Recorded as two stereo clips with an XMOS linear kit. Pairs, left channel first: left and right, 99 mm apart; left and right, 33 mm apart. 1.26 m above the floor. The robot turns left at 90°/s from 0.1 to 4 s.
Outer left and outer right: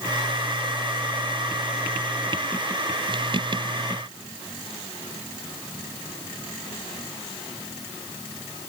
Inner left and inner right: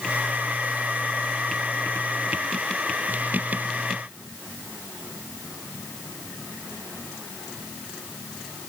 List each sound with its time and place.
Only background noise.